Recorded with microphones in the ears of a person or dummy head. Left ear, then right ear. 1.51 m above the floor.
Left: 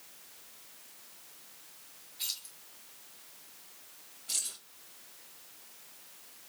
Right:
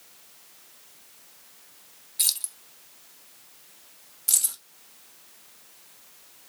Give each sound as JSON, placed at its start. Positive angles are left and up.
{"t": 2.2, "sound": "keys jangling", "side_deg": -40, "distance_m": 0.7}
{"t": 4.3, "sound": "keys jangling", "side_deg": -65, "distance_m": 1.5}